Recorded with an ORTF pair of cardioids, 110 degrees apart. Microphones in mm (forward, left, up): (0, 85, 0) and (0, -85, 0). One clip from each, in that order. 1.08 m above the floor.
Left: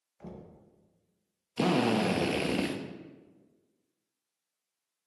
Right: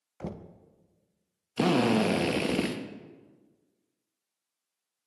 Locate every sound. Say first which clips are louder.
0.2 s knocking: right 7 dB; 50° right, 0.7 m
1.6 s a drill: right 2 dB; 10° right, 0.9 m